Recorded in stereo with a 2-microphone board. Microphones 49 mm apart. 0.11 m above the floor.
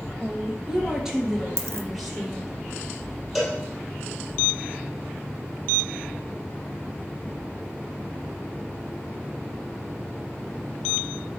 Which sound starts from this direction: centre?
A cowbell, at 3.4 s.